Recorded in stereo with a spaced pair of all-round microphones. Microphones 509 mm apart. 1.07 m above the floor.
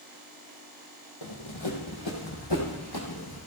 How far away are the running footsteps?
About 3 m.